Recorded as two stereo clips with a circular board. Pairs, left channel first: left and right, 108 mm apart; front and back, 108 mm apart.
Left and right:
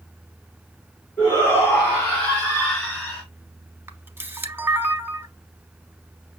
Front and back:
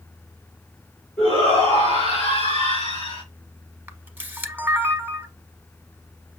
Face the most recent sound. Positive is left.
turn(degrees=-130)